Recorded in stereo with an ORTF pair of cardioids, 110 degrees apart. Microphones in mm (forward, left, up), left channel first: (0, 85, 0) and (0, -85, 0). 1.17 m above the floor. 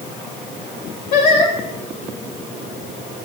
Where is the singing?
65° left, 2.5 m.